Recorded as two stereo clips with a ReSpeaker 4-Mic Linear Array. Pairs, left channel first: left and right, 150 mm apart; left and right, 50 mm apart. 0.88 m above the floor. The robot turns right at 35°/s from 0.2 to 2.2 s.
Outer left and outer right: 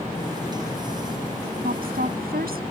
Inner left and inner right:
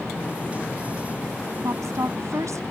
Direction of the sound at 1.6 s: 70° right (ahead or behind).